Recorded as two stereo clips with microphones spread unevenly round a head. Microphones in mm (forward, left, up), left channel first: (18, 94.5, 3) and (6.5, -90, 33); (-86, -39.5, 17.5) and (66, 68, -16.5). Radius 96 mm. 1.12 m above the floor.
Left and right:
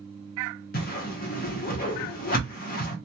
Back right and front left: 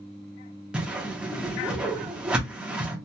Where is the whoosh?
115° left, 0.7 m.